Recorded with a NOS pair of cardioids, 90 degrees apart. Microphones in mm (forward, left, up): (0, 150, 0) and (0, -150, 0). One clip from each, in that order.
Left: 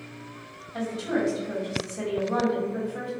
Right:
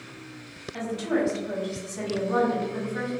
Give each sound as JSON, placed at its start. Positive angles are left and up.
{"t": 0.7, "sound": "a woman speaking", "azimuth_deg": -20, "distance_m": 1.5}